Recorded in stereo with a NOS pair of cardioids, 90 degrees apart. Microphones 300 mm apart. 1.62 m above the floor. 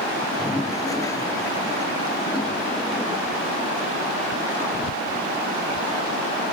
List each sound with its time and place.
0.2 s a toilet flushing: 10° left